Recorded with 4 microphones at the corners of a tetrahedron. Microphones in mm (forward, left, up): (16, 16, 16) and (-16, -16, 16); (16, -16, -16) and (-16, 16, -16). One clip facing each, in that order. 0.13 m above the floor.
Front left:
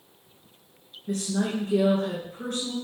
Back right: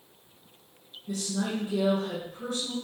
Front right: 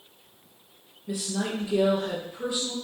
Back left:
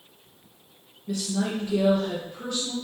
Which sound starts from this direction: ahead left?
A woman speaking, at 1.1 s.